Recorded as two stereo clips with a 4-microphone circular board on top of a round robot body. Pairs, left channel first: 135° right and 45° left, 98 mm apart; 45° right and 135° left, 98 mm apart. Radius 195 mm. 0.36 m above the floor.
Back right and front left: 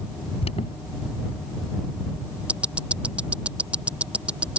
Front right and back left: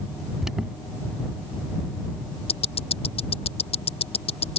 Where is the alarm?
140° right.